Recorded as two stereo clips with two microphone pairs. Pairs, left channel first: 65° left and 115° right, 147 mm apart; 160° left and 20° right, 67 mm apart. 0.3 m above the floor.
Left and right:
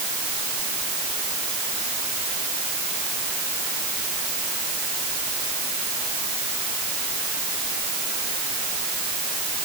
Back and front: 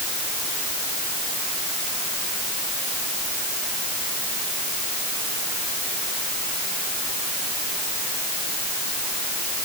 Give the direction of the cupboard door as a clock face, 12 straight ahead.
I don't hear a cupboard door.